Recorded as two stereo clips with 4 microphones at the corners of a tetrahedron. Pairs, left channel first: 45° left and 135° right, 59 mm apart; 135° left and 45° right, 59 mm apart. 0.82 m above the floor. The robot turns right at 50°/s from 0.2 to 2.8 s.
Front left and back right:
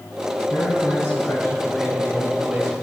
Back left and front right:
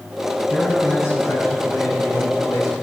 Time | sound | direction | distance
0.5 | a man speaking | 55° left | 5.5 m